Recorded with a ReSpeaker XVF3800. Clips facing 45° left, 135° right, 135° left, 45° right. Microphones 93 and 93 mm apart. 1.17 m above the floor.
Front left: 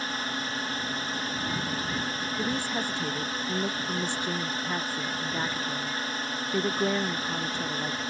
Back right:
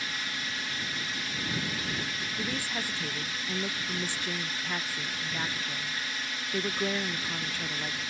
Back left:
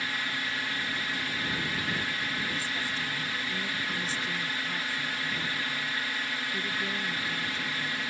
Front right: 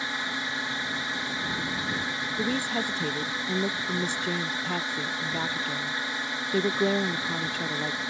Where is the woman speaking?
30° right.